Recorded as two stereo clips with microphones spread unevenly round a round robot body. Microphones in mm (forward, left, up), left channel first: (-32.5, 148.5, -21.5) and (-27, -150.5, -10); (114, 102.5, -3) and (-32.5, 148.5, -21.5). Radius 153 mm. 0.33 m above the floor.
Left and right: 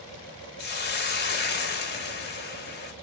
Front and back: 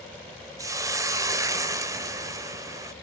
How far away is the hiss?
About 0.6 m.